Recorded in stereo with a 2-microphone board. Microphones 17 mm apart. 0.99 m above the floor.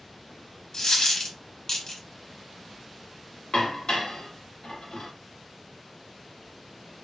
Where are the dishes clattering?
60° left (ahead or behind), 1.1 m.